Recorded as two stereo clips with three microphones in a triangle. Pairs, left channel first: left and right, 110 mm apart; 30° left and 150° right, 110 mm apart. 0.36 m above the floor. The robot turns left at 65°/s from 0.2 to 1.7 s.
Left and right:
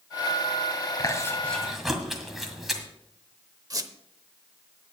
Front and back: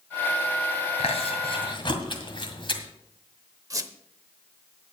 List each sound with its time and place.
1.0 s chewing: 45° left, 1.8 m; by 2.8 s straight ahead, 1.8 m
3.7 s a squeak: 120° right, 0.8 m